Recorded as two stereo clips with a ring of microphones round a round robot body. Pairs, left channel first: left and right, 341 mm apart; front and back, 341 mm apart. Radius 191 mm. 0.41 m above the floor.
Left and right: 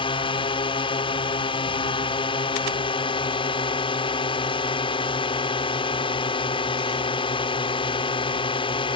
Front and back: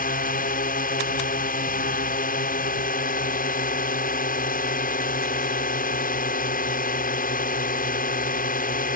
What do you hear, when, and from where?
0.0 s a drone: 30° left